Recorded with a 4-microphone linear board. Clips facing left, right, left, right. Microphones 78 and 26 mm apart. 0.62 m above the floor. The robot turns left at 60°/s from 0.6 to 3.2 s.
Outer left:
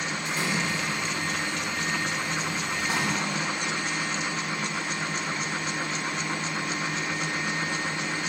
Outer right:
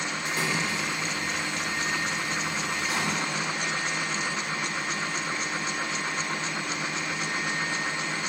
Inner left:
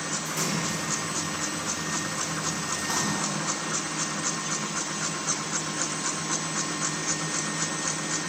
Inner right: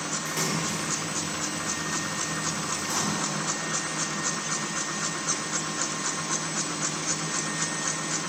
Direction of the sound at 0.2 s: 60° right (ahead or behind).